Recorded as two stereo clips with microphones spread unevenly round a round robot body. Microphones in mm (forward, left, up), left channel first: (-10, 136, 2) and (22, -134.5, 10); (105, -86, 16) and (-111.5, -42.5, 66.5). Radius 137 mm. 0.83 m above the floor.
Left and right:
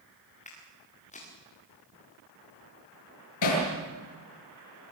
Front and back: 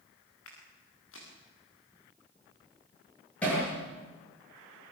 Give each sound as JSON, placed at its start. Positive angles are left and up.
{"t": 0.5, "sound": "footsteps", "azimuth_deg": 30, "distance_m": 6.5}
{"t": 3.4, "sound": "hammering", "azimuth_deg": 75, "distance_m": 8.5}